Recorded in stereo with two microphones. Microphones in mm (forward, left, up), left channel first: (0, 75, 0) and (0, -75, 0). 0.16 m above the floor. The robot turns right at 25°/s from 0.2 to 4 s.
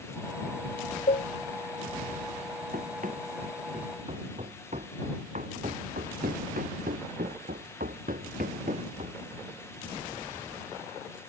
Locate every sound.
1.1 s a cowbell: 65° left (ahead or behind); by 1.3 s 60° left (ahead or behind)
2.7 s running footsteps: 70° right (ahead or behind); by 9.2 s 50° right (ahead or behind)